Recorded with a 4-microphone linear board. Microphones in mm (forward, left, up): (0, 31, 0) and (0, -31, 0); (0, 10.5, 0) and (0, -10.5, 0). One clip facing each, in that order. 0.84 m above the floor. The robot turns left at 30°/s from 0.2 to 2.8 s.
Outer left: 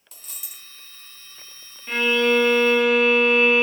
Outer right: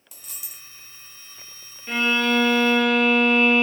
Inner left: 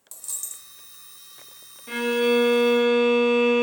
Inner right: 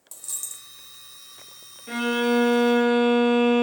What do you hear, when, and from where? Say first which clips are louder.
0.1 s a dropped coin: even, inner right 1 dB; 10° right (ahead or behind), 0.7 m; by 0.7 s centre (ahead or behind), 0.7 m
1.9 s a violin: outer left 2 dB, inner left 1 dB; centre (ahead or behind), 0.8 m; by 3.6 s 15° left (ahead or behind), 0.8 m